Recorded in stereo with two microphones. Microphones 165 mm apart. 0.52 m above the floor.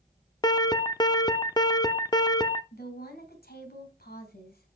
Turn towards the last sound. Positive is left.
turn(degrees=75)  # may be behind; listen again after turning